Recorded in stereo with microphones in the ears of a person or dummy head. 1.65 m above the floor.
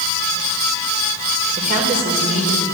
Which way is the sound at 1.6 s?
40° right (ahead or behind).